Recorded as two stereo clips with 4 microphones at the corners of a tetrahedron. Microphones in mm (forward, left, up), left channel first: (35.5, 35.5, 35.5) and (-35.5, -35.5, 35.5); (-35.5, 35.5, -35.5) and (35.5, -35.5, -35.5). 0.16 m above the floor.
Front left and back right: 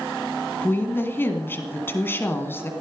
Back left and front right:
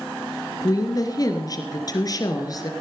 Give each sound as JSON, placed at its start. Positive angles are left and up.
{"t": 0.6, "sound": "a woman speaking", "azimuth_deg": 105, "distance_m": 2.0}